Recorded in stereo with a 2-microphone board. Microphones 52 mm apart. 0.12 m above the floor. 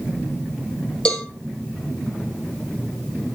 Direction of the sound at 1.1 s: 20° left (ahead or behind).